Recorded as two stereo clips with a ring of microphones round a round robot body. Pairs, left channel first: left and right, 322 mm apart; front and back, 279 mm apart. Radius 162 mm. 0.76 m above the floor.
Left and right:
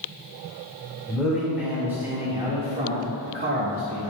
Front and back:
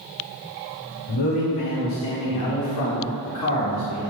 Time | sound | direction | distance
1.1 | a man speaking | straight ahead | 2.5 m